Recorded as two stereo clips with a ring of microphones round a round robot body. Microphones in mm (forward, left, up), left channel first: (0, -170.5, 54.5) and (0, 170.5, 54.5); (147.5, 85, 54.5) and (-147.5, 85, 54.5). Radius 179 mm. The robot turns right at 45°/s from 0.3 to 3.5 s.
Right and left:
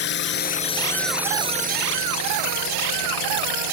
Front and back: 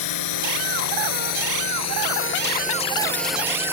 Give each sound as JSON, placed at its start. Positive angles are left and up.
{"t": 0.0, "sound": "a drone", "azimuth_deg": -30}